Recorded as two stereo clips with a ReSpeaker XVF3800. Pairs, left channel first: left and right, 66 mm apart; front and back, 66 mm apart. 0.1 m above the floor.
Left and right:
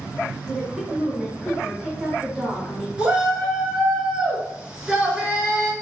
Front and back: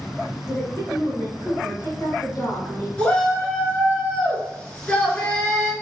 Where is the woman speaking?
Straight ahead, 1.9 m.